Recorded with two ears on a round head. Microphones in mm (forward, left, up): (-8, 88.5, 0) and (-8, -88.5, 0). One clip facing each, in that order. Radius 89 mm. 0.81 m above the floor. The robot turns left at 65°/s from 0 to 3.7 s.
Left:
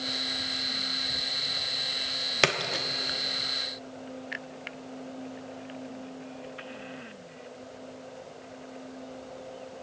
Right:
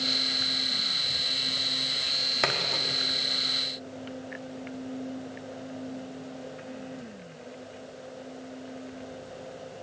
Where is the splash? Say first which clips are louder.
Left 3 dB; 35° left (ahead or behind), 0.8 m; by 2.9 s 10° left (ahead or behind), 0.8 m.